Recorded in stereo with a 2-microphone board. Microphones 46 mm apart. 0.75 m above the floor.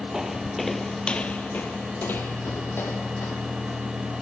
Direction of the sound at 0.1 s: 10° right (ahead or behind).